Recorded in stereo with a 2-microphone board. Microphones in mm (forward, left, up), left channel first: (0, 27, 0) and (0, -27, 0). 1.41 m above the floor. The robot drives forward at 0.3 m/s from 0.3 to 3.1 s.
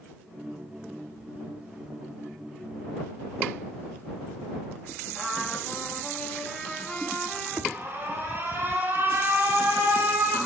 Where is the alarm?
40° right (ahead or behind), 2.5 m.